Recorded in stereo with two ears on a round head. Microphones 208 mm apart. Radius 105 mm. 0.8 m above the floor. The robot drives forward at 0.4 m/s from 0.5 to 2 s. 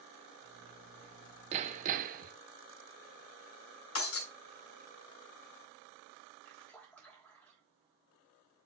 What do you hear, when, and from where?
1.5 s hammering: 30° right (ahead or behind), 0.7 m; by 2.3 s 35° right (ahead or behind), 0.6 m
4.0 s breaking glass: 65° left (ahead or behind), 2.5 m
6.4 s a splash: 5° left (ahead or behind), 3 m